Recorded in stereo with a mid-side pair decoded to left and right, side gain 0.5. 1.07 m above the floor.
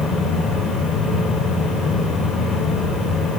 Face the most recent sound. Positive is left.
turn(degrees=55)